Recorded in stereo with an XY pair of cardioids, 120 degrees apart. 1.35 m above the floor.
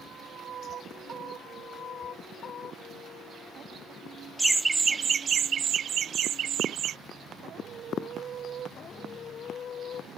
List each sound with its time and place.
4.4 s laughter: 5° right; by 7.0 s 60° right